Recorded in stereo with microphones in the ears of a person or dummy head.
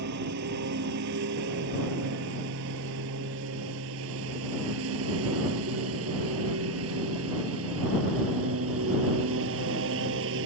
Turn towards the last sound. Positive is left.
turn(degrees=-70)  # may be behind; listen again after turning